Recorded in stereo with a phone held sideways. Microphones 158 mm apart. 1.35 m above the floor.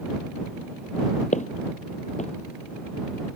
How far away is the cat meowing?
No cat meowing in this recording.